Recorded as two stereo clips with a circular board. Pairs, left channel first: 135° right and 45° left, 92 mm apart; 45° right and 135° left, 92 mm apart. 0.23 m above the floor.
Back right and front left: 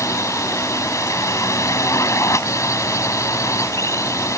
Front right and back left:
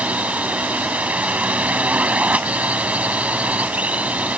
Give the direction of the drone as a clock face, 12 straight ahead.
5 o'clock.